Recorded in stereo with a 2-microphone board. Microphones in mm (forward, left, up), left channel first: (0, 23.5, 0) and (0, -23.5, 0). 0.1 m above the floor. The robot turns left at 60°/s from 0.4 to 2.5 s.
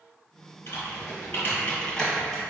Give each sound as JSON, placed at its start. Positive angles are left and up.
{"t": 0.7, "sound": "typing on a keyboard", "side_deg": 50, "distance_m": 1.6}